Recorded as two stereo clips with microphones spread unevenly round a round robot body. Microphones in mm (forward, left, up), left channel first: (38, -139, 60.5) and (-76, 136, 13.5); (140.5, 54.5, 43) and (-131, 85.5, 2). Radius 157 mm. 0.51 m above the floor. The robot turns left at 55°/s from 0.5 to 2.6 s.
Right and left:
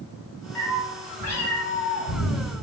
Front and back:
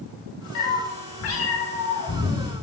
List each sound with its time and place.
0.6 s a cat meowing: 15° left, 1.6 m; by 2.4 s 85° right, 1.6 m